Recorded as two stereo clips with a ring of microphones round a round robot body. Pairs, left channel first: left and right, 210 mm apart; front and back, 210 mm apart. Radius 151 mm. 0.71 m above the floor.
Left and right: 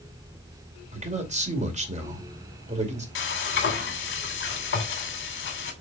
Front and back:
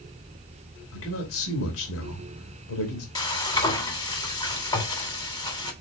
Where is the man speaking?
35° right, 2.5 m.